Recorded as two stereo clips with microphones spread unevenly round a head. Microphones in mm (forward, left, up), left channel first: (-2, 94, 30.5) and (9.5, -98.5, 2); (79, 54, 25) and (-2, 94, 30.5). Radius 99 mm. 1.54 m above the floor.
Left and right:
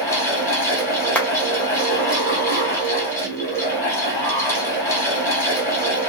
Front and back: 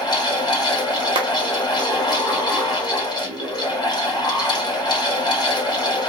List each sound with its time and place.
0.0 s a fan: 15° left, 2.0 m
1.1 s a clap: 170° left, 0.8 m